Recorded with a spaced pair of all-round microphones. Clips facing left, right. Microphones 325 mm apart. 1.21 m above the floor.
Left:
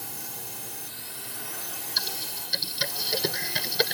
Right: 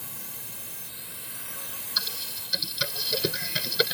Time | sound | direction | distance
0.0 | a drone | 75° left (ahead or behind) | ?
2.0 | typing on a keyboard | 10° right (ahead or behind) | ?